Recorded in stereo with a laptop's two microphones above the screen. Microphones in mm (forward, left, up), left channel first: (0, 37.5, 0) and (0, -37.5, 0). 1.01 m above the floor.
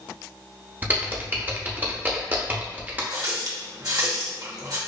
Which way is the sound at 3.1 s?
55° right (ahead or behind).